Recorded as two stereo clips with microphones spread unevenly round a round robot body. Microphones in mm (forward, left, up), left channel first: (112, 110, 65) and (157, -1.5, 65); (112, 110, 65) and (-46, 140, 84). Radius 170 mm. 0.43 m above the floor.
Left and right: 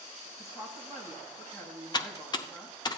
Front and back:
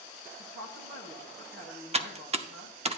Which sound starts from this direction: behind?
A woman speaking, at 0.4 s.